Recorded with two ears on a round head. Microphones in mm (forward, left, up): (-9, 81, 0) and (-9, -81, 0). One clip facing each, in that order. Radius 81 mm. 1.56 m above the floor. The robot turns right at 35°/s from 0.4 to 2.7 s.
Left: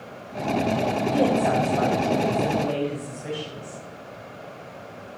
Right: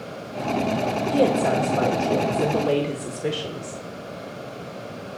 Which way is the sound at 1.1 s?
155° right.